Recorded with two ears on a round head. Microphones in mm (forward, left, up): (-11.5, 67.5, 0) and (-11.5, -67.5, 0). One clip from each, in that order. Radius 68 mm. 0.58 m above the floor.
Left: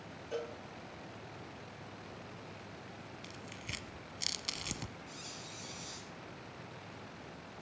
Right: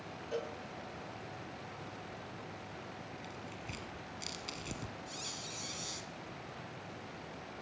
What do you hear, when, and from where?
0.3 s a cowbell: 5° left (ahead or behind), 1.3 m
3.2 s tearing paper: 45° left (ahead or behind), 0.9 m
5.1 s a squeak: 25° right (ahead or behind), 1.8 m